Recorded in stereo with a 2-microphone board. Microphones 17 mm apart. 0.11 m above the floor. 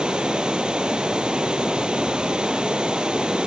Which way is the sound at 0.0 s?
65° right (ahead or behind).